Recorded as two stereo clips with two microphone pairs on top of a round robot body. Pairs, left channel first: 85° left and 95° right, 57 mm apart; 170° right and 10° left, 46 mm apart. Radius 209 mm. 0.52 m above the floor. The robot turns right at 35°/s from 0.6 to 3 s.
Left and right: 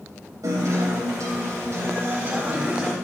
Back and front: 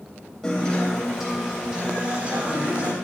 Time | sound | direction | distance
0.4 | a guitar | 95° right | 3.5 m